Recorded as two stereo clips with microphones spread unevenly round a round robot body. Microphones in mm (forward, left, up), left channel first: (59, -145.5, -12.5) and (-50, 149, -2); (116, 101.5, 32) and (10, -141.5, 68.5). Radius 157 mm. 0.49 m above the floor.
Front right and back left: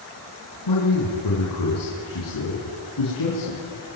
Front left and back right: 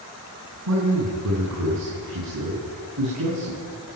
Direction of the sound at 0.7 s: 95° right.